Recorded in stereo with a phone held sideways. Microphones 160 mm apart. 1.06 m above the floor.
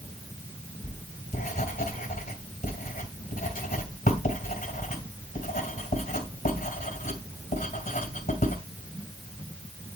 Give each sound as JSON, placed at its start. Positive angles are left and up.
{"t": 0.8, "sound": "writing", "side_deg": 55, "distance_m": 2.5}